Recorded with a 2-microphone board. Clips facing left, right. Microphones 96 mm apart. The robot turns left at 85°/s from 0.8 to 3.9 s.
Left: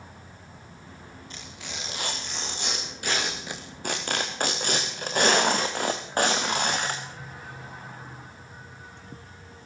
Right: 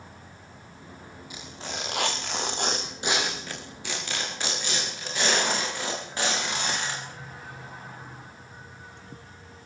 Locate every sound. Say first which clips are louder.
1.3 s tearing paper: right 5 dB; 10° right, 5 m; by 7.0 s 130° left, 5 m